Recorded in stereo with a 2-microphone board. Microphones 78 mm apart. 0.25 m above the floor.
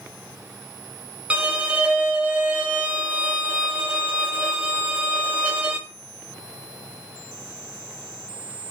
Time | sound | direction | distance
1.3 | a violin | 20° right (ahead or behind) | 0.8 m